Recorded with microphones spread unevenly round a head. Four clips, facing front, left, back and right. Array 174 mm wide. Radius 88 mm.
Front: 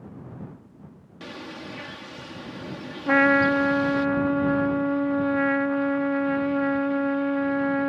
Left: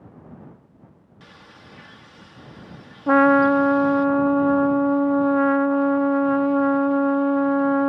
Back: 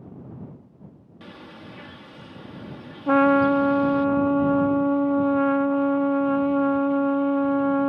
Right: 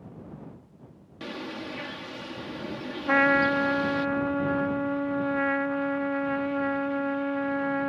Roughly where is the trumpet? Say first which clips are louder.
Left 8 dB, back 2 dB; left.